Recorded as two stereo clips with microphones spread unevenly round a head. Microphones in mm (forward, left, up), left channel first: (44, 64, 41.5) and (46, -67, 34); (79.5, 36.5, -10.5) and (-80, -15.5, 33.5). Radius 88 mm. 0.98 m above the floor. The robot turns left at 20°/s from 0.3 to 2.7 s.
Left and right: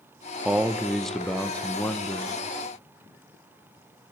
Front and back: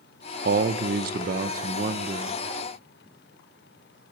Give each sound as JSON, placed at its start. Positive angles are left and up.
{"t": 0.5, "sound": "a man speaking", "azimuth_deg": -165, "distance_m": 0.7}